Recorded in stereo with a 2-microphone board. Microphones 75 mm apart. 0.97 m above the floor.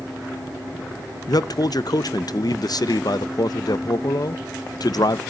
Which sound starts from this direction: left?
A man speaking, at 1.3 s.